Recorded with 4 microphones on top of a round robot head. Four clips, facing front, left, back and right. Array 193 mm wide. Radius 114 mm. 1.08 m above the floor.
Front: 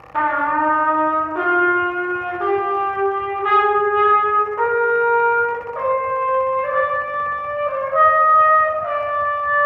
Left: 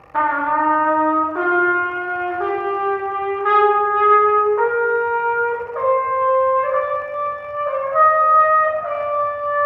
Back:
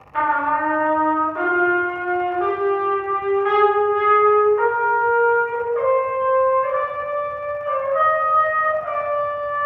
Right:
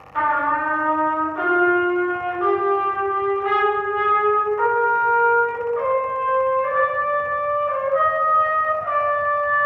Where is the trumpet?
65° left, 1.0 m.